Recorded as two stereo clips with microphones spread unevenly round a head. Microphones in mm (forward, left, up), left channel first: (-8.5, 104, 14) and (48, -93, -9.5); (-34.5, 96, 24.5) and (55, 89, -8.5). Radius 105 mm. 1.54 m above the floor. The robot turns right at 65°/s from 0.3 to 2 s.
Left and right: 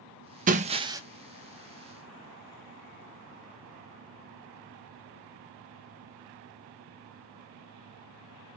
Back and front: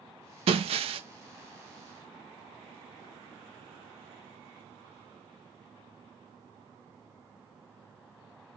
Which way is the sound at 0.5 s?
30° right.